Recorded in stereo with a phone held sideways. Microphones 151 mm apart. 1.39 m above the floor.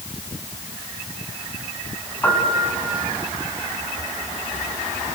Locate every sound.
2.2 s a piano: 15° left (ahead or behind), 4 m